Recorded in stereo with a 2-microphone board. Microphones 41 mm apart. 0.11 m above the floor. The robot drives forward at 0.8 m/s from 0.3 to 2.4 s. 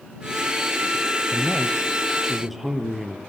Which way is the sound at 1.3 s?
5° right (ahead or behind).